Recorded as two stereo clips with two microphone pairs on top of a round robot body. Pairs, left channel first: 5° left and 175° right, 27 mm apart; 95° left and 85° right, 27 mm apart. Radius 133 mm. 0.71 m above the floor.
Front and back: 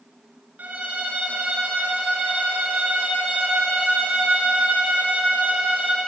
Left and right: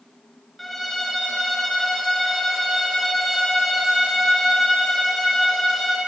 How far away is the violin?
About 4.5 m.